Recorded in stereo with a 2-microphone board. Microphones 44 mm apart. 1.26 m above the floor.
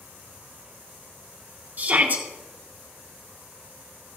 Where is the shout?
40° right (ahead or behind), 2 m.